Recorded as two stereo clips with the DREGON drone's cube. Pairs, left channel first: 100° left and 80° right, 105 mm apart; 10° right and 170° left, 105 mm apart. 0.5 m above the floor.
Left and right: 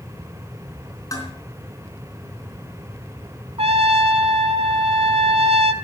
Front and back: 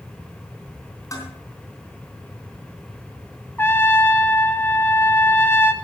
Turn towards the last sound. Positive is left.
turn(degrees=-80)